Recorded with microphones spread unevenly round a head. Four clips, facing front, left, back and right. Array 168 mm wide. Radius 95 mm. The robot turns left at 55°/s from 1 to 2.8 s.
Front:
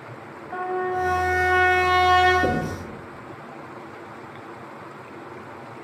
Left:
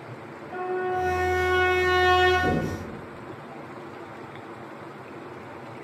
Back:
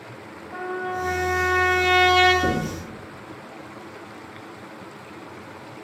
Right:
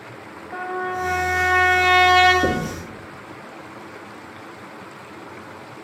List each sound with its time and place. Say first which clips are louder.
0.5 s a trumpet: even, front 3 dB; 30° right, 4.5 m; by 2.3 s 105° right, 4.5 m
2.4 s knocking: right 3 dB, front 1 dB; 65° right, 1.8 m; by 2.8 s 85° right, 1.8 m